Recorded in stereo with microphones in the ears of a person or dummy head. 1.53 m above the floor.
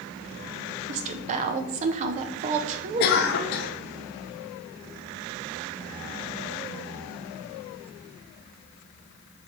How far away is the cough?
About 0.6 m.